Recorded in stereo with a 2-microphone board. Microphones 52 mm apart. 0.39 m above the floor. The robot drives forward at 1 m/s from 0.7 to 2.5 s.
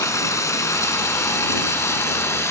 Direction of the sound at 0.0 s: 80° left.